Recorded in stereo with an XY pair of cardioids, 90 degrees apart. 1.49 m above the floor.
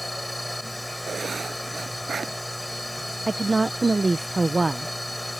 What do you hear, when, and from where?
0.0 s a machine running: straight ahead
1.1 s writing: 50° right
3.3 s a woman speaking: 30° right